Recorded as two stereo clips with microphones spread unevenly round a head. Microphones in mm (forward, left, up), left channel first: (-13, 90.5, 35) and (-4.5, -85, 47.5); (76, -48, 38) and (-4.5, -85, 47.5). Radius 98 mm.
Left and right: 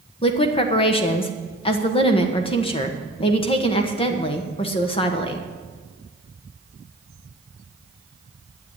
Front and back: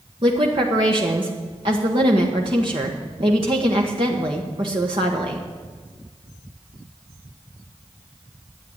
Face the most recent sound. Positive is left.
turn(degrees=155)